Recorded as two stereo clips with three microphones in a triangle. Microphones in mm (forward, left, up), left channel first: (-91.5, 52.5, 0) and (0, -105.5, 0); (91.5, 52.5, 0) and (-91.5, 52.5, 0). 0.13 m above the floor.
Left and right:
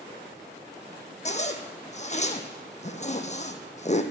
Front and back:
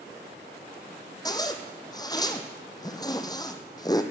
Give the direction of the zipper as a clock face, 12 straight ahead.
10 o'clock.